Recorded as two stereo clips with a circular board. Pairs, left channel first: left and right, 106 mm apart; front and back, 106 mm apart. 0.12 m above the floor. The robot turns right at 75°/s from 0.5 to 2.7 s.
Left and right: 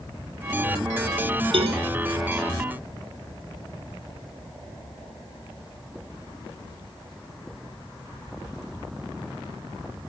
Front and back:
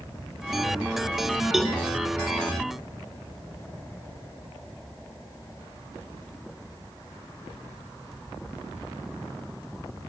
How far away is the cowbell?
About 1.0 m.